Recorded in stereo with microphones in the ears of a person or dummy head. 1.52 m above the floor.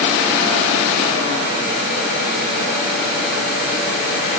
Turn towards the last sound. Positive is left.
No sound to turn to.